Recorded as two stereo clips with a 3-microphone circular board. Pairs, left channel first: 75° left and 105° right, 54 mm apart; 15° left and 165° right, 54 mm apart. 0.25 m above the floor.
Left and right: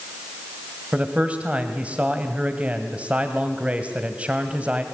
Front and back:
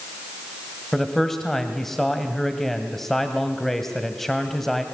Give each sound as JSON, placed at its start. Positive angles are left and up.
{"t": 0.9, "sound": "a man speaking", "azimuth_deg": -65, "distance_m": 1.5}